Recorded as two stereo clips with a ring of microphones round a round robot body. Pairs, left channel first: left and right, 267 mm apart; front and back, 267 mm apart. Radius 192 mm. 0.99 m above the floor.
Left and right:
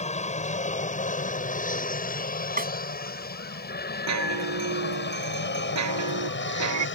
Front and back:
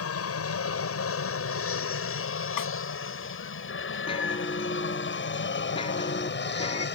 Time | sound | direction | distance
0.0 | an aircraft | 25° left | ?
2.6 | a snare drum | 35° right | ?
4.1 | a chime | 75° right | ?